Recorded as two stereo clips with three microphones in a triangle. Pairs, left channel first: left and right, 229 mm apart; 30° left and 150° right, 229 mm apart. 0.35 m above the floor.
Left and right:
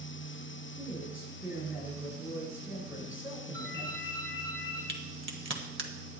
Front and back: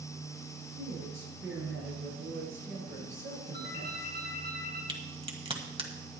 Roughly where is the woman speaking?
Behind.